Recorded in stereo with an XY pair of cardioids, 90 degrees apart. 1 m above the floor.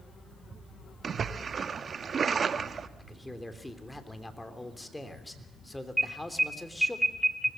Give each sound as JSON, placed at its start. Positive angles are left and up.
{"t": 1.0, "sound": "a splash", "azimuth_deg": -45, "distance_m": 1.2}
{"t": 3.0, "sound": "a man speaking", "azimuth_deg": 15, "distance_m": 3.0}
{"t": 6.0, "sound": "an alarm", "azimuth_deg": -5, "distance_m": 2.5}